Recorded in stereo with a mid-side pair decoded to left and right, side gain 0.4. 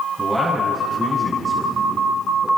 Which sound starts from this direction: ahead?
A man speaking, at 0.2 s.